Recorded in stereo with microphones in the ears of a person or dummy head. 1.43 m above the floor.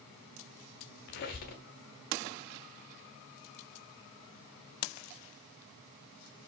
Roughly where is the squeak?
Left.